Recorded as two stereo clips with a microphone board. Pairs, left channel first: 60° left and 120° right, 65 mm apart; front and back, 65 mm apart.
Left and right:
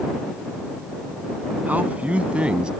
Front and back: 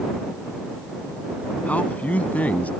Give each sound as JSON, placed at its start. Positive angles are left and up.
{"t": 1.7, "sound": "a man speaking", "azimuth_deg": -60}